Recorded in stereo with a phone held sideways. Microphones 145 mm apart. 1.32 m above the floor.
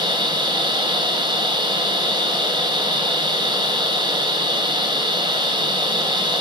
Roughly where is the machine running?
Right.